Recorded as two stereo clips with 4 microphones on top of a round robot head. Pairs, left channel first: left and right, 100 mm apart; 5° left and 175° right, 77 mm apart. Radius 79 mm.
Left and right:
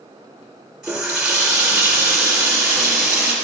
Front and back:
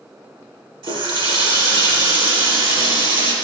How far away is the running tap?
About 3 m.